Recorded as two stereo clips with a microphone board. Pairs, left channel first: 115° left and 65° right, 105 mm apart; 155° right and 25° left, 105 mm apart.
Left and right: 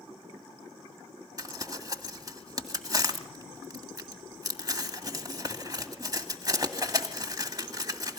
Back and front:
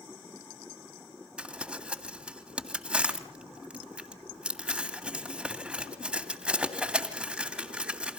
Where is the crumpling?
50° right, 1.9 m.